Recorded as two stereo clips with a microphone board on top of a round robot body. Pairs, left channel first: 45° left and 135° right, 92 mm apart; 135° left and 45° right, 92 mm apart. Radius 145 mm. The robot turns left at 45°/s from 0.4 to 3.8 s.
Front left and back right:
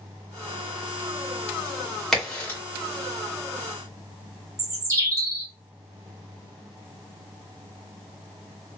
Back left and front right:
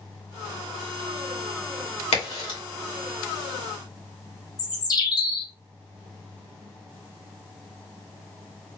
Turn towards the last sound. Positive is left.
turn(degrees=175)